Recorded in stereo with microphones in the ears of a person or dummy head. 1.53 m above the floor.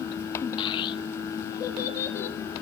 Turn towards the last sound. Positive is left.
turn(degrees=15)  # may be behind; listen again after turning